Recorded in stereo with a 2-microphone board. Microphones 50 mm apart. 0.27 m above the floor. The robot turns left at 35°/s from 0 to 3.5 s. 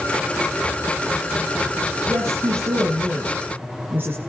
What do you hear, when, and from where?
2.1 s a woman speaking: 80° right, 8 m; by 4.2 s 130° right, 8 m